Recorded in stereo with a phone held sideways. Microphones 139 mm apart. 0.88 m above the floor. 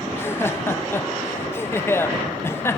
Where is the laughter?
15° left (ahead or behind), 0.7 m.